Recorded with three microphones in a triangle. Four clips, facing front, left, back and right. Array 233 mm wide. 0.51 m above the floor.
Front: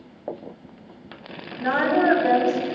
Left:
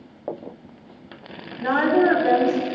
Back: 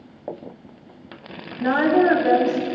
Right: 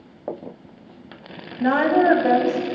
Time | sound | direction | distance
1.6 | a woman speaking | 95° right | 4 m